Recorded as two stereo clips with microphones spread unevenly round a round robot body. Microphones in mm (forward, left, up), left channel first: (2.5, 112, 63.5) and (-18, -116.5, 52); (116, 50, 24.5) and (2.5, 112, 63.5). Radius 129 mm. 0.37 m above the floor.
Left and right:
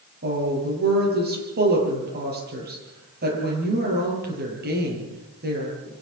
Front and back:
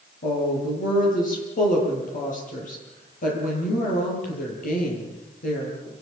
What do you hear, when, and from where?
0.2 s a woman speaking: 45° right, 9.5 m